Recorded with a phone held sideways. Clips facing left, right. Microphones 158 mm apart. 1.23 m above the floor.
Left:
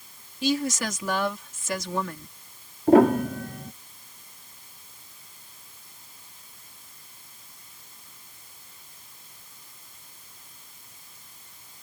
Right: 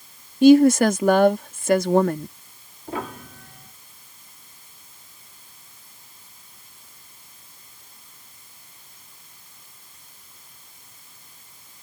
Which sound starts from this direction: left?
A piano, at 2.9 s.